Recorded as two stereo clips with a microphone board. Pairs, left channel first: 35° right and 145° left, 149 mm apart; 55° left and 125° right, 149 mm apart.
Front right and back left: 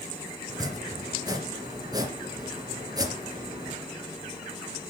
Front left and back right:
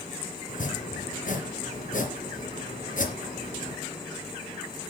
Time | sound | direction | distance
0.5 | chopping | 80° left | 3 m